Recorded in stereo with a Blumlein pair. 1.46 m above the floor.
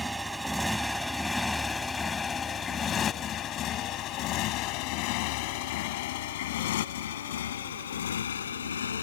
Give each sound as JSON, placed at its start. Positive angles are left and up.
{"t": 0.0, "sound": "a motorcycle", "azimuth_deg": -5}